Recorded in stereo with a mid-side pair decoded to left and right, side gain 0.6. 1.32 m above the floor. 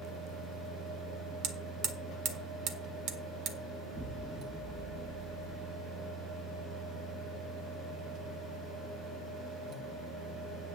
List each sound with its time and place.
0.0 s a fan: 65° right, 3 m
1.4 s hammering: 70° right, 1.6 m
3.9 s an explosion: 20° right, 1.3 m